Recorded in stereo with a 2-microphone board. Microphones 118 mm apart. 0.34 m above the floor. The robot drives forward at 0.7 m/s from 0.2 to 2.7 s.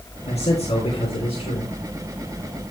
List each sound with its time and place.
0.3 s a man speaking: 65° left (ahead or behind), 3 m; by 1.7 s 50° left (ahead or behind), 3 m